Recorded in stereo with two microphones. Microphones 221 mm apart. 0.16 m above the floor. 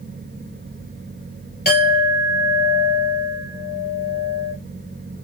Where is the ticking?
No ticking in this recording.